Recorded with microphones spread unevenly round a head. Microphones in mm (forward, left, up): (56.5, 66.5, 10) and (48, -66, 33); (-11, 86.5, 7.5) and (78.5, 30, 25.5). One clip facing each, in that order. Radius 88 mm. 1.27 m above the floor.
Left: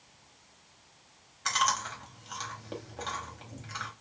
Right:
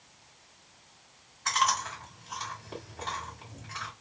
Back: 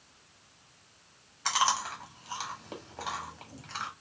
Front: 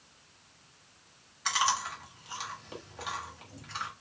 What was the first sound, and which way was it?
Chewing, 100° left.